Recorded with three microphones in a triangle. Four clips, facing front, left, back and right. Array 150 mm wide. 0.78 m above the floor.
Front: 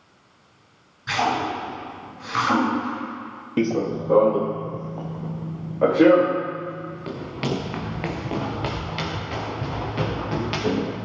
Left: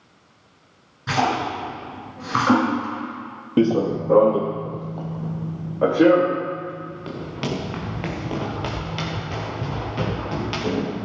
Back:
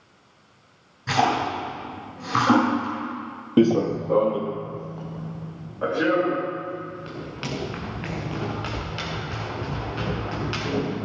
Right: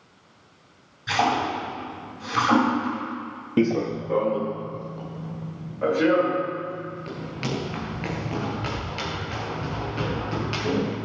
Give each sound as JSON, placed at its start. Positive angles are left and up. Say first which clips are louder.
{"t": 1.1, "sound": "a splash", "louder": "left 1 dB, back 1 dB", "azimuth_deg": 125, "distance_m": 7.0}
{"t": 3.6, "sound": "running footsteps", "louder": "left 4 dB, back 4 dB", "azimuth_deg": 155, "distance_m": 0.8}